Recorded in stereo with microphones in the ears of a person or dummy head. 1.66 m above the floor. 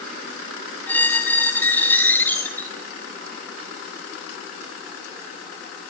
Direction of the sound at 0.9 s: 5° left (ahead or behind).